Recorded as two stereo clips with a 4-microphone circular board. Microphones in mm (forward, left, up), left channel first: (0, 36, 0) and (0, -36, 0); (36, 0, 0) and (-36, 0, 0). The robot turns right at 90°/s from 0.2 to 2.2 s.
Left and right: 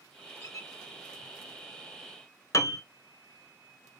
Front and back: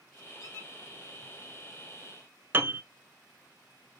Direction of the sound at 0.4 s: 40° left.